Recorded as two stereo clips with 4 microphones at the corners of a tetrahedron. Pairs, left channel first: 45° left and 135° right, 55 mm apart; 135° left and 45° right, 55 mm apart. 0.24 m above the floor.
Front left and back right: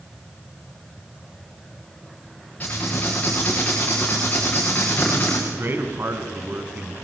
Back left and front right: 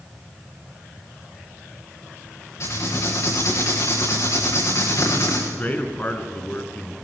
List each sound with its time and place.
2.6 s writing: 110° left, 8.5 m
5.5 s a man speaking: 175° right, 3 m